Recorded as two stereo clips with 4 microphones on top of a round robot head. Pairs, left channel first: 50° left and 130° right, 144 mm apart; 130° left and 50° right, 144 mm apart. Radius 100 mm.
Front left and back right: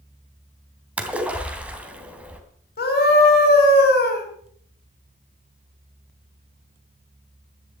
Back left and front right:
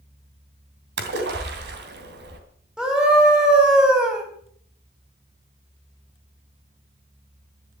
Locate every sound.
1.0 s a splash: 50° right, 2.5 m
2.8 s a scream: 40° left, 4.5 m